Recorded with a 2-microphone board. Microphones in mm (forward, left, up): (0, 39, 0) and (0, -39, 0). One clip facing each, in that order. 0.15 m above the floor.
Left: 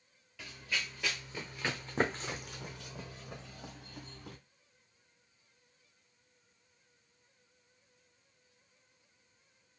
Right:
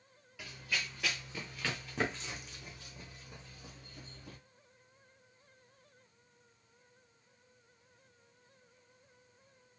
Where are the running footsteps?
5° right (ahead or behind), 1.5 m; by 4.4 s 60° left (ahead or behind), 1.5 m.